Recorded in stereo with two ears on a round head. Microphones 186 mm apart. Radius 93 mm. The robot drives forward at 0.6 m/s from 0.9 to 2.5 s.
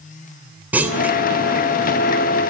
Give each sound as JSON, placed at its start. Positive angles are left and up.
{"t": 0.7, "sound": "a clunk", "side_deg": -10, "distance_m": 2.5}